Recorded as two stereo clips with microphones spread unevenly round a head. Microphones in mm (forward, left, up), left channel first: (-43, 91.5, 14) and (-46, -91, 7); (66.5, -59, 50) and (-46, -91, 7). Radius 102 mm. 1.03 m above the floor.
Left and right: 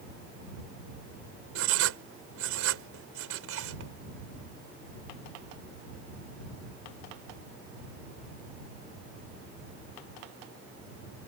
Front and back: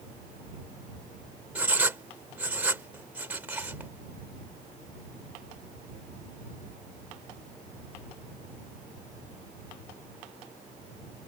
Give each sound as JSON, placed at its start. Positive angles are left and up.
{"t": 1.6, "sound": "writing", "azimuth_deg": -90}